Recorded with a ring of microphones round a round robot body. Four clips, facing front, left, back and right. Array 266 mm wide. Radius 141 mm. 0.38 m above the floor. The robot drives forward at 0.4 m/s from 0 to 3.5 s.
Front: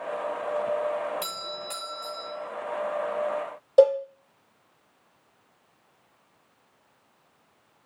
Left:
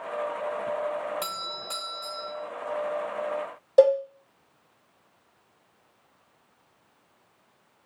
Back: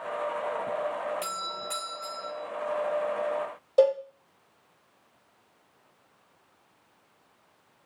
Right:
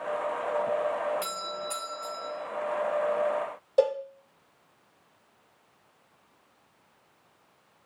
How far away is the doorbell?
About 1.8 m.